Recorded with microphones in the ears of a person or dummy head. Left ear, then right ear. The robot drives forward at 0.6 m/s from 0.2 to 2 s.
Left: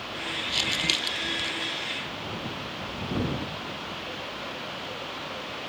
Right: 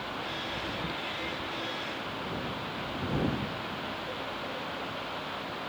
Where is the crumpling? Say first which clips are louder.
Left 9 dB; 90° left; by 1.5 s 85° left.